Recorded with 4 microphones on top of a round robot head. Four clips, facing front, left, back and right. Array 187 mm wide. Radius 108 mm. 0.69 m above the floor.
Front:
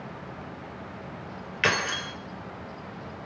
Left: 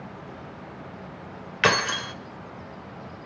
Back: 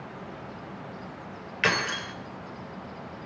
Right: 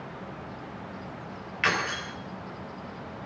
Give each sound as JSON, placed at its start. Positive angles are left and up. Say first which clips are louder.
{"t": 1.6, "sound": "keys jangling", "louder": "left 5 dB, even", "azimuth_deg": 90, "distance_m": 1.8}